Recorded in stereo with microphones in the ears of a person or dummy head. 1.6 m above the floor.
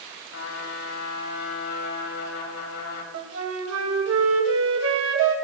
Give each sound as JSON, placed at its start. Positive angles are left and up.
{"t": 0.3, "sound": "a trumpet", "side_deg": 70, "distance_m": 3.0}
{"t": 3.1, "sound": "a flute", "side_deg": -85, "distance_m": 2.5}